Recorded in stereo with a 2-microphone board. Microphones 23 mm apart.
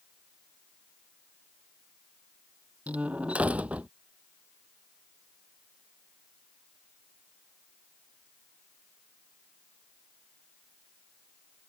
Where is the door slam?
80° right.